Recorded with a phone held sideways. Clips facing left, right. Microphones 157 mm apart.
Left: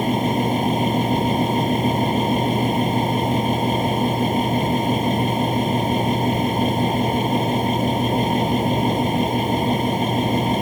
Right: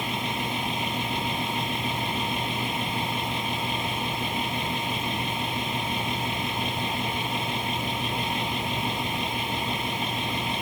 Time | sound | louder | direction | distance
0.0 | a fan | left 11 dB | 45° left (ahead or behind) | ?